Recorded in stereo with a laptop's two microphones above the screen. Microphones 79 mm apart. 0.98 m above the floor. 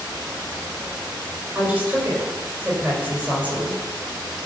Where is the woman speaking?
20° right (ahead or behind), 4.5 m.